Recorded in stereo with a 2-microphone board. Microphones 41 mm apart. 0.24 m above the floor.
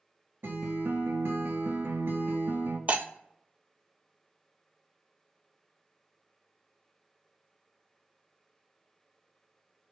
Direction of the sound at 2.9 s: 40° right (ahead or behind).